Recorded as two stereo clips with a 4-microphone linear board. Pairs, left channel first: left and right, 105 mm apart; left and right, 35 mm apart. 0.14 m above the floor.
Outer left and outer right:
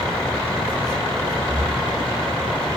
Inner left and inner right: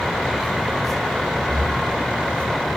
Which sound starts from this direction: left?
Breathing, at 1.5 s.